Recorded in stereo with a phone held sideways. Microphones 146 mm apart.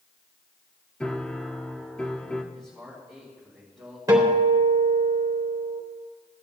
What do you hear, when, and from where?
1.0 s a piano: 5° left (ahead or behind), 0.8 m
2.5 s a man speaking: centre (ahead or behind), 4.5 m
4.1 s a guitar: 25° right (ahead or behind), 3 m